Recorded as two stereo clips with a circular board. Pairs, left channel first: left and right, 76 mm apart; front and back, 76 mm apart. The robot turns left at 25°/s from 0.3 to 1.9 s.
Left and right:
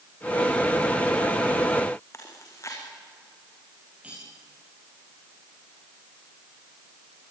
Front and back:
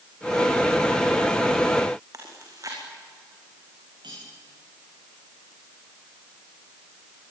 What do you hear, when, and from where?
2.1 s chewing: 140° left, 6 m
4.0 s cutlery clinking: 165° right, 10 m